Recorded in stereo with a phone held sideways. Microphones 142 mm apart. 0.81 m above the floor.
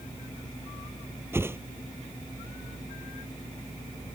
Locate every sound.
1.3 s a whoosh: 15° right (ahead or behind)